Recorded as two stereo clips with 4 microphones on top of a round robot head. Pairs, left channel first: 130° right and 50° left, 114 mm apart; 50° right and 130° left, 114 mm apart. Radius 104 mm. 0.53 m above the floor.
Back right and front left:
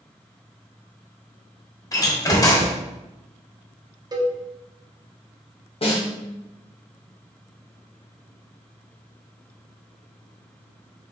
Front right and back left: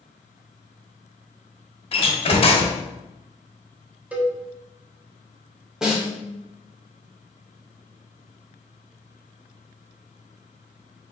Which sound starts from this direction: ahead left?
A cowbell, at 4.1 s.